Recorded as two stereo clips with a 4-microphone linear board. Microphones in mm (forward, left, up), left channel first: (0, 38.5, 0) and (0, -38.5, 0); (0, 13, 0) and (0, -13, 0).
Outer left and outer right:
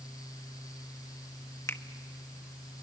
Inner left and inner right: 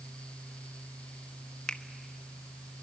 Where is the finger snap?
35° left (ahead or behind), 1.1 m.